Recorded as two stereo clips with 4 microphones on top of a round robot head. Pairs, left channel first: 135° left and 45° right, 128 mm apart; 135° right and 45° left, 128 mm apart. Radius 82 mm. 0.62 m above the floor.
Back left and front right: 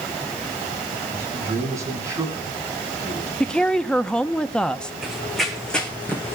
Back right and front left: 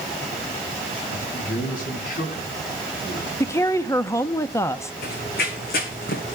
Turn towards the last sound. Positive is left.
turn(degrees=-155)